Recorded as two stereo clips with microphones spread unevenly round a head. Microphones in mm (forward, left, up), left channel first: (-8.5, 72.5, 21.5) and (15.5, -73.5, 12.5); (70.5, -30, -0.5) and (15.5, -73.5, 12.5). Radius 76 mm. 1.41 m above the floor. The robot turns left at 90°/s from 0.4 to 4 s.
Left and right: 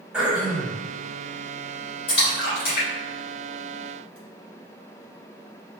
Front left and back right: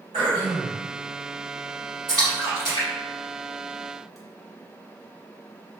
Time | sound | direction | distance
0.1 | throat clearing | 165° right | 1.5 m
2.1 | a splash | 115° left | 1.9 m